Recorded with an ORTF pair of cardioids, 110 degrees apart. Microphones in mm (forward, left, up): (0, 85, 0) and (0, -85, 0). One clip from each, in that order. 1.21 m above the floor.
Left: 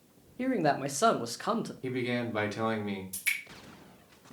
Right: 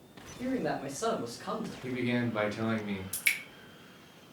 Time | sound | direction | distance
0.4 | a man speaking | 45° left | 0.6 m
1.8 | a man speaking | 15° left | 0.9 m
3.1 | dripping | 40° right | 1.3 m